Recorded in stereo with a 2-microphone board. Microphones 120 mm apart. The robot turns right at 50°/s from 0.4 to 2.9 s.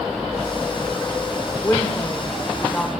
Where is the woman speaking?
20° left (ahead or behind), 0.9 m; by 2.9 s 10° left (ahead or behind), 0.9 m.